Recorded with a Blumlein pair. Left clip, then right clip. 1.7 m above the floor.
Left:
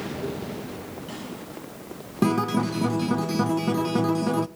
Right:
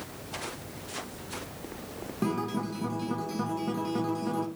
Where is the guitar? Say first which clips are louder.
Left 8 dB; 25° left, 0.8 m.